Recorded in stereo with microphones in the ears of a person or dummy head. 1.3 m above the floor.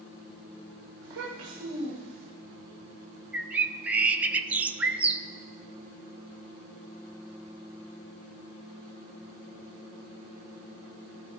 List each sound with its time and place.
1.0 s a child speaking: 80° right, 2.5 m; by 2.3 s 70° right (ahead or behind), 4 m
3.3 s a bird: 5° right (ahead or behind), 0.5 m